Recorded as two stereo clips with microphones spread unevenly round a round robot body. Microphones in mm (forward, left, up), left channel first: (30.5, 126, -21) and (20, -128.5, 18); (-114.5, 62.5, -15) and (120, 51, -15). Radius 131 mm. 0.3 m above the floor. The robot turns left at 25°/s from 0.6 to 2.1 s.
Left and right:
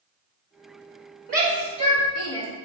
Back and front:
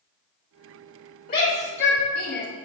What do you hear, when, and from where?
1.3 s a shout: 145° right, 1.8 m; by 2.5 s 165° right, 1.8 m